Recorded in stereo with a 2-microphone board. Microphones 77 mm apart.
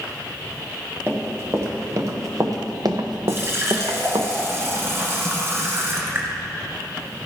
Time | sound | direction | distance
1.1 | running footsteps | 30° right (ahead or behind) | 2 m
3.3 | a running tap | 35° right (ahead or behind) | 1.7 m